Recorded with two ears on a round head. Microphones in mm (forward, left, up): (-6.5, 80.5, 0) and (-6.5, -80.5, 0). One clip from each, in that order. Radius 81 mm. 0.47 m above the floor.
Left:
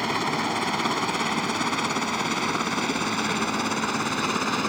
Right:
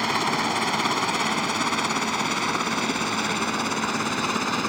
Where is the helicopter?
20° right (ahead or behind); by 4.7 s 5° right (ahead or behind).